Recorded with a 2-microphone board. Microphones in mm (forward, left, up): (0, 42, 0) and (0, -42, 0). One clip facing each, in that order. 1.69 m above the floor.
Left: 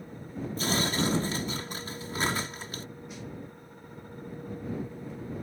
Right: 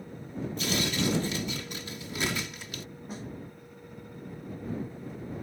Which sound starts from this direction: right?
A snare drum, at 3.1 s.